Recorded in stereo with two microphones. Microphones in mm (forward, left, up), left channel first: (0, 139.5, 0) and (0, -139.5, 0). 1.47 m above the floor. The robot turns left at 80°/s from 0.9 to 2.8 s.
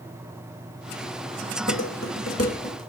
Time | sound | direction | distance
1.7 | dishes clattering | 65° left (ahead or behind) | 5.5 m